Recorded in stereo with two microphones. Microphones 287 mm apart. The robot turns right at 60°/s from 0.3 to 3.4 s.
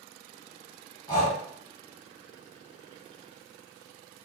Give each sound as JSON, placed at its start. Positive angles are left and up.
{"t": 1.1, "sound": "breathing", "side_deg": 15, "distance_m": 1.2}